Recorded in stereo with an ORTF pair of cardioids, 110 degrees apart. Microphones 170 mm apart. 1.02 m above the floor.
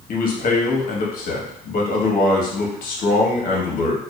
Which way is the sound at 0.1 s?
55° left.